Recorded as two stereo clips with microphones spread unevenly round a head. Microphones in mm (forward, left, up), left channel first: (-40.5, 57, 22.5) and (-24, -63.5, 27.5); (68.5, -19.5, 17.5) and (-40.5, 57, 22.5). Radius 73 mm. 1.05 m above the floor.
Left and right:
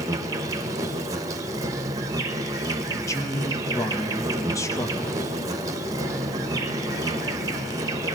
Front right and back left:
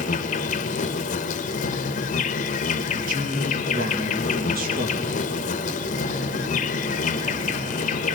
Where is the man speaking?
160° left, 1.6 m.